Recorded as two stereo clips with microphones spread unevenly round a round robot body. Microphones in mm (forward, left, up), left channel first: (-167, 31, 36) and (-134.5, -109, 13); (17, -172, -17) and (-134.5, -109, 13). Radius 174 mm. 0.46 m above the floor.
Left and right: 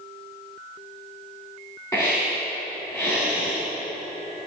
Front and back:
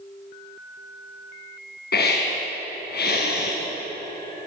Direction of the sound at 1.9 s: 20° left.